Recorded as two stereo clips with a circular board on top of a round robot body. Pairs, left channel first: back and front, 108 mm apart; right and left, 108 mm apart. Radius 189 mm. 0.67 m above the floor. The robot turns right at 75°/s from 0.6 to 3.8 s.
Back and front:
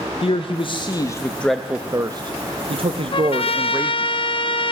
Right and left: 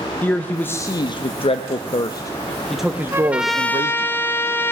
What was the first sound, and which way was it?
A man speaking, 160° right.